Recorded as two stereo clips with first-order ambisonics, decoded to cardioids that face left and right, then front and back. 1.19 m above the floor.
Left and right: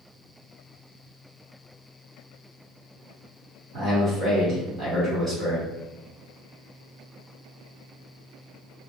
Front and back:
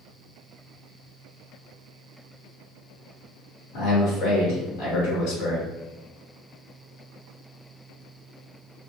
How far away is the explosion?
No explosion in this recording.